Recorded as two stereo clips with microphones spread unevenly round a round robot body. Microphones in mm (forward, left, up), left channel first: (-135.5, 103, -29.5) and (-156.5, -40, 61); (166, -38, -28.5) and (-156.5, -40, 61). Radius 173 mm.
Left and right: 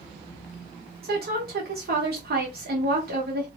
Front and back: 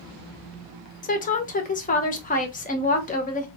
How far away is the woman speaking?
About 0.7 m.